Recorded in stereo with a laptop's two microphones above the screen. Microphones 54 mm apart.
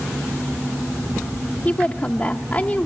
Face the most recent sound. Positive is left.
turn(degrees=30)  # may be behind; listen again after turning